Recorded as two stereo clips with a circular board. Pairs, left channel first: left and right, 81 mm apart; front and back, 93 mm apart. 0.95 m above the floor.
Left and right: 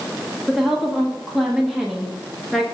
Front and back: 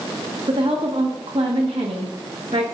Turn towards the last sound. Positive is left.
turn(degrees=-175)